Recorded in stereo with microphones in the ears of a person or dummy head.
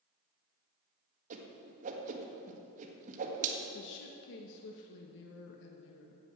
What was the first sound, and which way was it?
A whoosh, 45° right (ahead or behind).